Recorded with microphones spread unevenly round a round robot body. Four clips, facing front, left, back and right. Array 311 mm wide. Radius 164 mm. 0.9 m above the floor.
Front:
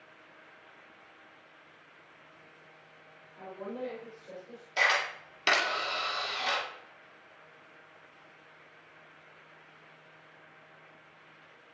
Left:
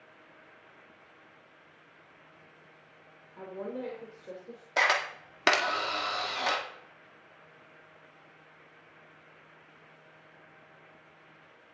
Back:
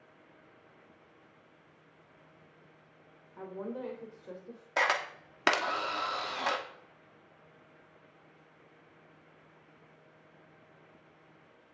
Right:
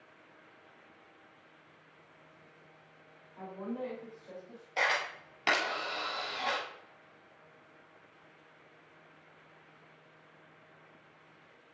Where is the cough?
No cough in this recording.